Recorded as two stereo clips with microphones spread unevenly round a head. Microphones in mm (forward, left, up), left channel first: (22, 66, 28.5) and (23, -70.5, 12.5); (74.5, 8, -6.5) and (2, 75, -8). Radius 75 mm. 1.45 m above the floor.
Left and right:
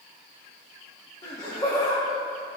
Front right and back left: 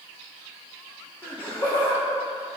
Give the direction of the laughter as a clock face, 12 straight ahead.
11 o'clock.